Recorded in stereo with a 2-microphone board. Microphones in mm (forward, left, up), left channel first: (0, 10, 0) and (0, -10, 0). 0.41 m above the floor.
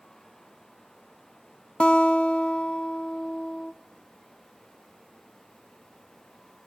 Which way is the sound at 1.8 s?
65° left (ahead or behind).